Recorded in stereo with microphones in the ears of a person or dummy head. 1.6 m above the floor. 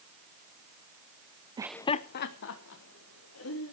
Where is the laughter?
20° right (ahead or behind), 0.5 m; by 3.7 s 80° left, 3 m.